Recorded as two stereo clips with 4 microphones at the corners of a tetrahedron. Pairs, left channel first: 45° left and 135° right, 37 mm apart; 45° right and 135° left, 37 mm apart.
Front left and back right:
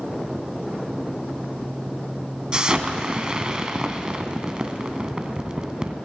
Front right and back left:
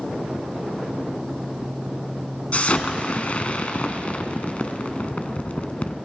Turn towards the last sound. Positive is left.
turn(degrees=-75)